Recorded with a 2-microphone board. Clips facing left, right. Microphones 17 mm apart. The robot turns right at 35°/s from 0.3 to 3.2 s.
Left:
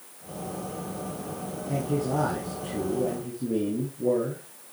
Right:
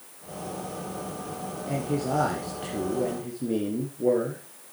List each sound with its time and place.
1.7 s a man speaking: 120° right, 2.5 m; by 4.4 s 65° right, 2.5 m